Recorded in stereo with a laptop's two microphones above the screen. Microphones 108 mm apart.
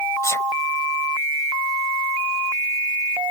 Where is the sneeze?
30° left (ahead or behind).